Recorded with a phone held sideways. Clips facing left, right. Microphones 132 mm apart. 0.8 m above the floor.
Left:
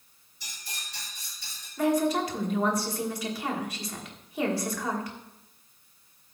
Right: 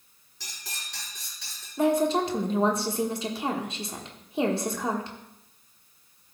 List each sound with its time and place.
0.4 s cutlery clinking: 80° right, 4 m
1.8 s a woman speaking: 25° right (ahead or behind), 1.4 m